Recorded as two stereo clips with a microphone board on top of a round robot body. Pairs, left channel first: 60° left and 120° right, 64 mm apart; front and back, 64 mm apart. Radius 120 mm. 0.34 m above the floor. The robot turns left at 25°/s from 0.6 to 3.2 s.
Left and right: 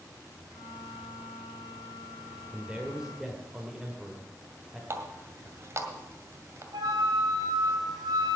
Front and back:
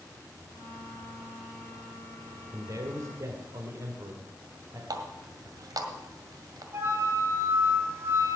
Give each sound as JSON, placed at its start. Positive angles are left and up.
{"t": 2.5, "sound": "a man speaking", "azimuth_deg": 175, "distance_m": 1.7}
{"t": 4.9, "sound": "a running tap", "azimuth_deg": -165, "distance_m": 1.9}
{"t": 6.7, "sound": "a flute", "azimuth_deg": -130, "distance_m": 3.0}